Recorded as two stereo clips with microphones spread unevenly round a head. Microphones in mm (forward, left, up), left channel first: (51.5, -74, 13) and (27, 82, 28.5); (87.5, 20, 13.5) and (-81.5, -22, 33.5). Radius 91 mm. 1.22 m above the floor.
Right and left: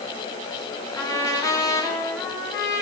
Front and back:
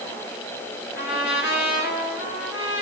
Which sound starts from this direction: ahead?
A trumpet, at 0.9 s.